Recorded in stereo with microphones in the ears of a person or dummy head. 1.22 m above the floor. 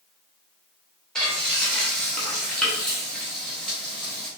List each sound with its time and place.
1.1 s frying: 5° left (ahead or behind), 0.8 m